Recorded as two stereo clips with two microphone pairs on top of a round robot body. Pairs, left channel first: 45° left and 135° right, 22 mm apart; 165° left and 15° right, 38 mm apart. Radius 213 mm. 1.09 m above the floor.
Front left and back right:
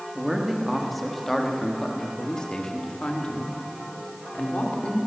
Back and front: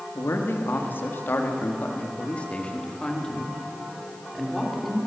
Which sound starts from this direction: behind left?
A man speaking, at 0.1 s.